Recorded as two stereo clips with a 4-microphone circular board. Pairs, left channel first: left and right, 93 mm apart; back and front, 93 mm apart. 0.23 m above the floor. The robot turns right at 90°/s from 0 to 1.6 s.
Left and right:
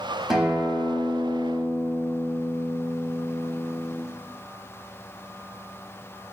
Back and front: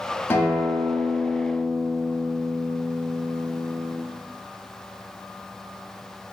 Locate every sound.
0.3 s a guitar: 170° right, 0.6 m; by 4.0 s 55° right, 0.6 m